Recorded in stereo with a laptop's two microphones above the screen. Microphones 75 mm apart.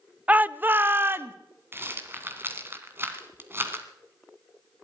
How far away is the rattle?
About 1.8 m.